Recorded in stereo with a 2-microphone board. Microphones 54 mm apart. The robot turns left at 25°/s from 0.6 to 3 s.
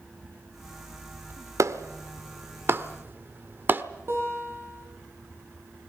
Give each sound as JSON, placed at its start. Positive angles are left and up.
{"t": 1.6, "sound": "a clap", "side_deg": -70, "distance_m": 1.2}
{"t": 4.1, "sound": "a guitar", "side_deg": -50, "distance_m": 8.0}